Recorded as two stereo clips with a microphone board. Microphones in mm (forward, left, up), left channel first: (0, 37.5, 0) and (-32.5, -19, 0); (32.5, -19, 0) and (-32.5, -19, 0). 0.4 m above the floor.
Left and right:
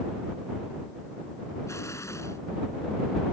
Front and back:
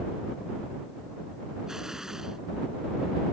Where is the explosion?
100° left.